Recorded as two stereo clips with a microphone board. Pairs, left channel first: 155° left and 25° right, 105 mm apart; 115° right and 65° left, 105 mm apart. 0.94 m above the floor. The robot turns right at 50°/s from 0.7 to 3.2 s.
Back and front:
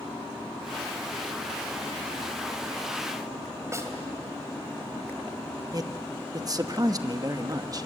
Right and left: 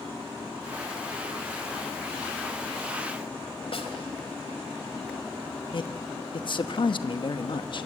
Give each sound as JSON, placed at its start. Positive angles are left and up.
{"t": 3.7, "sound": "a snare drum", "azimuth_deg": -85, "distance_m": 2.5}
{"t": 5.7, "sound": "a man speaking", "azimuth_deg": -75, "distance_m": 1.0}